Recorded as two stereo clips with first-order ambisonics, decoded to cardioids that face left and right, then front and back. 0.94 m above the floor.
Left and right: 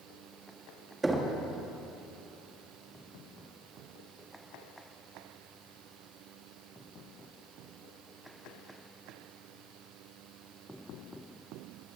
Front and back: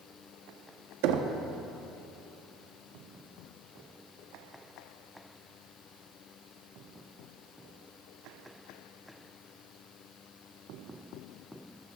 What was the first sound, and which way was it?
Knocking, 170° right.